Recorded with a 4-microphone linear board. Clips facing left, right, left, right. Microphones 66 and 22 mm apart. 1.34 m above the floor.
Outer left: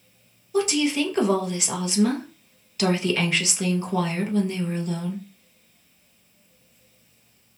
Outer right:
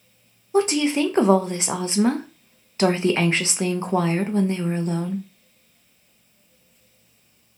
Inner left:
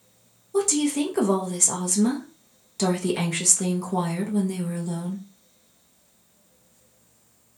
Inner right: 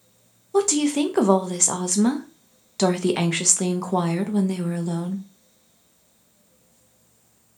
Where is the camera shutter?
No camera shutter in this recording.